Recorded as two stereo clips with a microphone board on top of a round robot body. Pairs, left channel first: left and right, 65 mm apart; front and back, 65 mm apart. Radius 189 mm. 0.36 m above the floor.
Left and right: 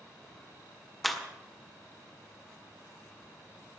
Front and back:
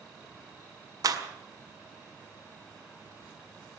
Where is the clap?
Straight behind, 1.9 m.